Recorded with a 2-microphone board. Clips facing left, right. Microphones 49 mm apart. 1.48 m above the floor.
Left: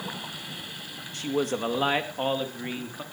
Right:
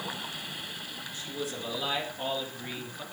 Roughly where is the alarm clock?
I don't hear an alarm clock.